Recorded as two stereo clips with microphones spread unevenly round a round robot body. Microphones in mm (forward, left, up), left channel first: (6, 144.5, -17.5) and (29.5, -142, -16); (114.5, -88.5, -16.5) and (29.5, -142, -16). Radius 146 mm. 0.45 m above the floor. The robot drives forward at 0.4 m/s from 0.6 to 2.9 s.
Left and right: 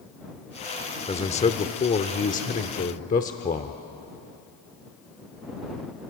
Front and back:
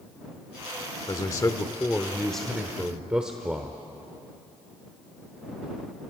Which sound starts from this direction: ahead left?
A man speaking, at 1.1 s.